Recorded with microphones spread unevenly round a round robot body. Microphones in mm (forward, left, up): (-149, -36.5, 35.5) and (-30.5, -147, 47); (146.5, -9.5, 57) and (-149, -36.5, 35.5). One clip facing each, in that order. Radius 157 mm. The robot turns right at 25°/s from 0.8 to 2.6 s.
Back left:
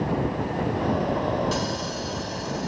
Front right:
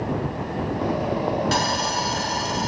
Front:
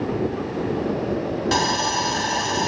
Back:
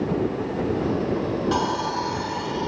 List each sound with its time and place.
1.5 s sawing: 40° right; by 2.7 s 15° right